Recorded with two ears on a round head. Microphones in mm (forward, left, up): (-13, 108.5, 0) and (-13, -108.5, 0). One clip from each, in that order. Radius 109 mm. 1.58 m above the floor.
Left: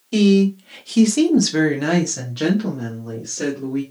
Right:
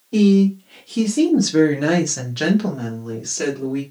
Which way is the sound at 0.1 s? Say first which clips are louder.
Even; 70° left (ahead or behind).